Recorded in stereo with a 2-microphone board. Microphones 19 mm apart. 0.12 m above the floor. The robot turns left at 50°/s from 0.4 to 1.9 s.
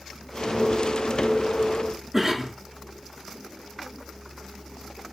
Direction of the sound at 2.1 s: 25° right (ahead or behind).